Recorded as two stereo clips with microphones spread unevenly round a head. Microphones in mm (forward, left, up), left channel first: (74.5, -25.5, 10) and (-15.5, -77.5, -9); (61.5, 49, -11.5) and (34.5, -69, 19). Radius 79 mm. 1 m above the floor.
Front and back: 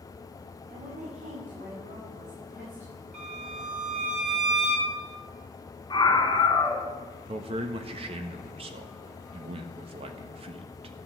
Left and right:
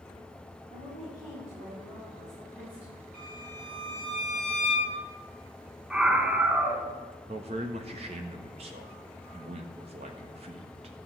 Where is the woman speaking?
170° left, 5.5 m; by 3.0 s 170° right, 7 m.